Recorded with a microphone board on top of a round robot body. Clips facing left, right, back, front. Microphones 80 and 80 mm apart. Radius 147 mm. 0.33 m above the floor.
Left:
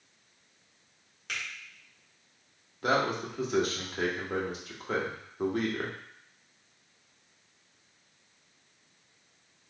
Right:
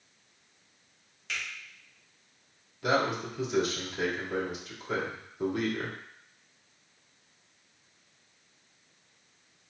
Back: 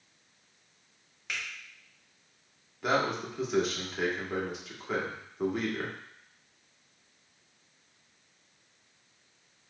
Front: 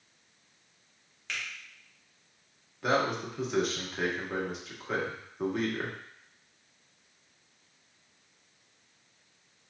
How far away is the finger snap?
About 1.9 m.